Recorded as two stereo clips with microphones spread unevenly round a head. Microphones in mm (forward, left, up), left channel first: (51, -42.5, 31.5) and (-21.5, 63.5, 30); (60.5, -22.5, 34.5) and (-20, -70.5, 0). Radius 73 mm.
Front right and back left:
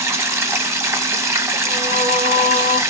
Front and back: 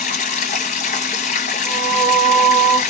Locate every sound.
0.0 s running water: 55° left, 0.8 m
1.6 s singing: 155° left, 2 m